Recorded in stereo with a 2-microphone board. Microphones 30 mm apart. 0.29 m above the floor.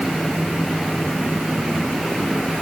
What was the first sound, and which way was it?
Only background noise.